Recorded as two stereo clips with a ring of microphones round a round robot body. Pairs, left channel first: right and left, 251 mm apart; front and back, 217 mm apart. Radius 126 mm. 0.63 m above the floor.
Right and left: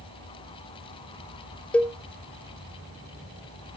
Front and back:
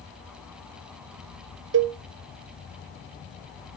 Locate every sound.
1.7 s a cowbell: 175° right, 0.6 m